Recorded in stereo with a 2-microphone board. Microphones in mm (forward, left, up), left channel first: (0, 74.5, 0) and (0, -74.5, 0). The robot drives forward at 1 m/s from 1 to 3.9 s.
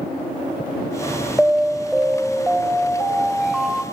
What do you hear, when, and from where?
1.4 s an alarm: 5° right (ahead or behind), 1.6 m; by 3.8 s centre (ahead or behind), 4 m